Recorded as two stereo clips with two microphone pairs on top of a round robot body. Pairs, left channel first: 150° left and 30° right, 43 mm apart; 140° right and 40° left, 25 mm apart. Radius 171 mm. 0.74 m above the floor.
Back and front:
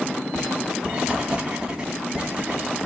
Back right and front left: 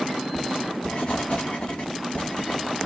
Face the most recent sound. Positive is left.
turn(degrees=-95)